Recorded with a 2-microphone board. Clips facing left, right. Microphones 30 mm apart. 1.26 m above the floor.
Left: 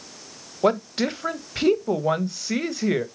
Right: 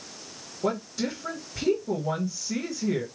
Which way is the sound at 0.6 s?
65° left (ahead or behind).